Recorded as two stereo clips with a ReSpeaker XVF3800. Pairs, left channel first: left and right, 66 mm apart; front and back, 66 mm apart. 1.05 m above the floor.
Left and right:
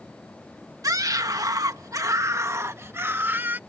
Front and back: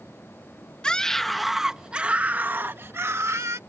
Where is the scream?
75° right; by 3.6 s 145° right.